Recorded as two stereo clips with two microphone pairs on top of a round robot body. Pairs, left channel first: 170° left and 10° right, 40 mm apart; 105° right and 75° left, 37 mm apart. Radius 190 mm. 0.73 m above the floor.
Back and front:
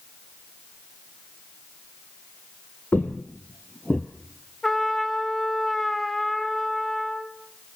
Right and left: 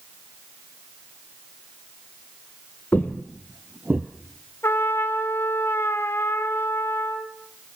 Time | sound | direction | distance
2.9 | footsteps | 145° right | 1.2 m
4.6 | a trumpet | 105° right | 1.5 m